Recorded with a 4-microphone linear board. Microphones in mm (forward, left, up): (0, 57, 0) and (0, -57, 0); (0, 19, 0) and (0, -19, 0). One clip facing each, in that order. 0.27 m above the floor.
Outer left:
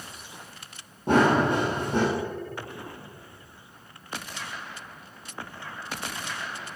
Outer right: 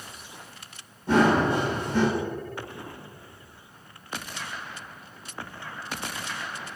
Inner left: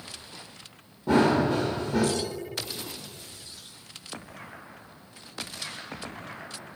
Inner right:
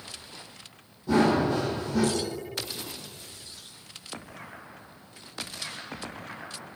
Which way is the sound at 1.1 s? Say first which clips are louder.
Even, inner left 1 dB; 60° left (ahead or behind).